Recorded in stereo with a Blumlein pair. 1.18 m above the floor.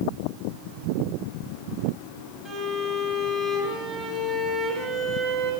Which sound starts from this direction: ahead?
A violin, at 2.5 s.